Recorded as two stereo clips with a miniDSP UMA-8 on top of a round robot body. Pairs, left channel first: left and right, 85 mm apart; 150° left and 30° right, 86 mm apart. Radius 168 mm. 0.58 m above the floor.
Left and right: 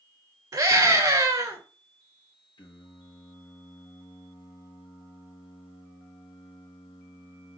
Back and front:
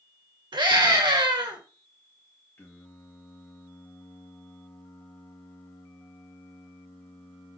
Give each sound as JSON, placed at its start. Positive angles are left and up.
{"t": 0.5, "sound": "a scream", "azimuth_deg": -50, "distance_m": 2.0}
{"t": 2.6, "sound": "singing", "azimuth_deg": 90, "distance_m": 1.3}